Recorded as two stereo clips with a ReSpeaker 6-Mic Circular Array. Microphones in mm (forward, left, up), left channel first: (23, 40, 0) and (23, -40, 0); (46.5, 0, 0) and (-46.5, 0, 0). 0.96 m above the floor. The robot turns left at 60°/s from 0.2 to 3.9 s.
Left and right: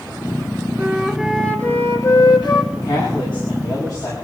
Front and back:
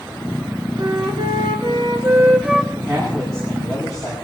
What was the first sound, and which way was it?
A flute, 150° right.